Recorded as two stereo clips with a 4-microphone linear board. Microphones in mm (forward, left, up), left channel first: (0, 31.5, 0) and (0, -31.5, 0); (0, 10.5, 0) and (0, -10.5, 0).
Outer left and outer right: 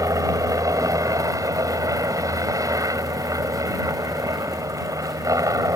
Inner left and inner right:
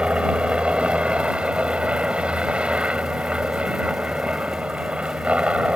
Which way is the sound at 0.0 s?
65° right (ahead or behind).